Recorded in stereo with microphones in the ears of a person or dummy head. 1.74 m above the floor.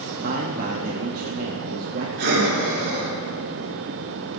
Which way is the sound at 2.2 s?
60° right (ahead or behind).